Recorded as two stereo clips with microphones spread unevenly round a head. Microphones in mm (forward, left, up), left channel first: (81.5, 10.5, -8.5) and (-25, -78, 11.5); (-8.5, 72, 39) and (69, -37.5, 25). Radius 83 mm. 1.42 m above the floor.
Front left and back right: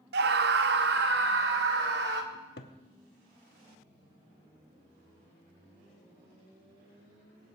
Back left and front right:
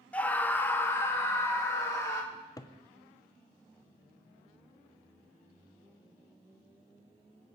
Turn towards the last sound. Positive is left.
turn(degrees=60)